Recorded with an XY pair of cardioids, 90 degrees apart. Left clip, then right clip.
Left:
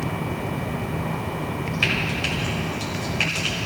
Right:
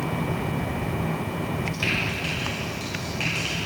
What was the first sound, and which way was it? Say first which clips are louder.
Frying: left 3 dB; 55° left.